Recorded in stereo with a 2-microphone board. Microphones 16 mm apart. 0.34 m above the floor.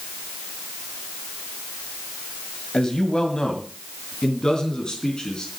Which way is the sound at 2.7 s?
50° left (ahead or behind).